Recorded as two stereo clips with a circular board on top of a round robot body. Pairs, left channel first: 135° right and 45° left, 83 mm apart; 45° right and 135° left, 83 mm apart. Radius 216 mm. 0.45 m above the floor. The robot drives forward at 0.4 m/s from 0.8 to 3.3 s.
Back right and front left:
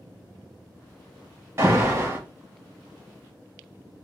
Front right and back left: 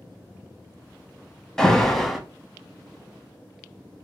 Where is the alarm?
30° left, 1.7 m; by 2.2 s 40° left, 1.7 m.